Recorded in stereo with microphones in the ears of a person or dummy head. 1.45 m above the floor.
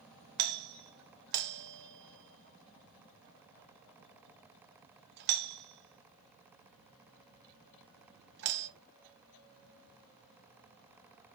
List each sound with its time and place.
0.4 s a doorbell: 60° right (ahead or behind), 0.7 m